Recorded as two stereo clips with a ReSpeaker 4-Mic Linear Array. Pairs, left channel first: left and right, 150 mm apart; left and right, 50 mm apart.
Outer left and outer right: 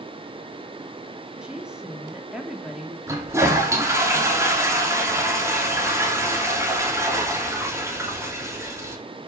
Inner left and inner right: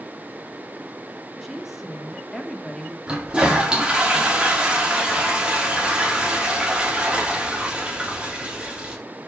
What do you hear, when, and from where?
1.4 s a woman speaking: 5° right (ahead or behind), 3 m
3.1 s a toilet flushing: 20° right (ahead or behind), 3 m